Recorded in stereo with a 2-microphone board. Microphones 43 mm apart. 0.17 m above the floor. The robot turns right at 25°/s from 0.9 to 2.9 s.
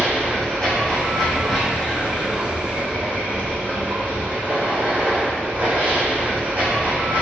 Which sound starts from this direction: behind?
Running water, at 0.0 s.